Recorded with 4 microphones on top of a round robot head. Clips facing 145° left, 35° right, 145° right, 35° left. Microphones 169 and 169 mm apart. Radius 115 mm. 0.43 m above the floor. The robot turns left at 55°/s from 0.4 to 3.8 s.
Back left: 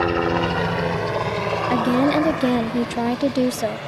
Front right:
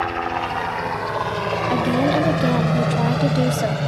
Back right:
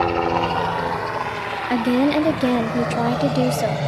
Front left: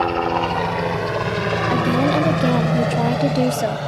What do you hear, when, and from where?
0.0 s a helicopter: 130° left; by 3.9 s 75° right
1.7 s a woman speaking: 160° right; by 3.8 s 90° left